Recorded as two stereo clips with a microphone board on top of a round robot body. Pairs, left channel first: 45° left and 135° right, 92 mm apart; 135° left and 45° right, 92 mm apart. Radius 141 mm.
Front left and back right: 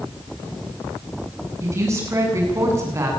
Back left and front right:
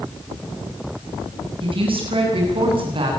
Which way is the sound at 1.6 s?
75° right.